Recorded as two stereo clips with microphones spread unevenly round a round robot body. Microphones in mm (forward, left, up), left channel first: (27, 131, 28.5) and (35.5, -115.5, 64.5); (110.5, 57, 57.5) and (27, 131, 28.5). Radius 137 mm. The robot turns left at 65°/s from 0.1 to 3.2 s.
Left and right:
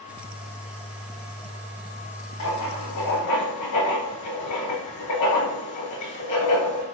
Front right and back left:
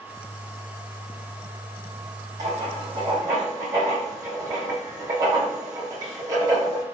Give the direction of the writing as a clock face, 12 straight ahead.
8 o'clock.